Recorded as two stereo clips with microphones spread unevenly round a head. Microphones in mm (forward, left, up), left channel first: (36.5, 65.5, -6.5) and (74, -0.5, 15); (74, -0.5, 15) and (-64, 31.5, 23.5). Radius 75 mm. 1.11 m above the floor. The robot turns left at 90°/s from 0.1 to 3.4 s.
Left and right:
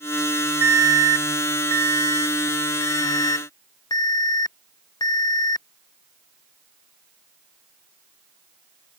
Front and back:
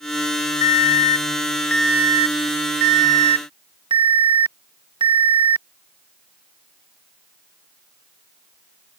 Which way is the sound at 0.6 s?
5° left.